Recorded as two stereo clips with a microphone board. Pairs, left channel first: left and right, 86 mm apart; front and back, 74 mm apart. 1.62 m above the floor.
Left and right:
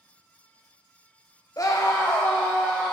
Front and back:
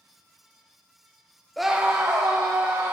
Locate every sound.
1.6 s a scream: 85° left, 0.6 m; by 2.9 s 155° left, 1.7 m